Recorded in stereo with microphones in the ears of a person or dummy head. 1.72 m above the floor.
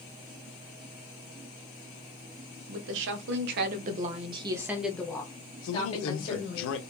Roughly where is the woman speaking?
Right.